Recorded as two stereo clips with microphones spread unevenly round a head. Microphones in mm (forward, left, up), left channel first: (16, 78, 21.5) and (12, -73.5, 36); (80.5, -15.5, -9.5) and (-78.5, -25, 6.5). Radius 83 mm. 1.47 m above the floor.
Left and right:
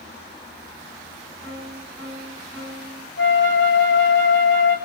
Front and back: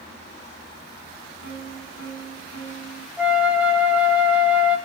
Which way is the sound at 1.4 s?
15° right.